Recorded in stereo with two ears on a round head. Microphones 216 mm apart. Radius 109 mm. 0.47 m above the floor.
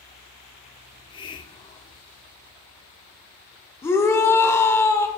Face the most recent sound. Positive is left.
turn(degrees=10)  # may be behind; listen again after turning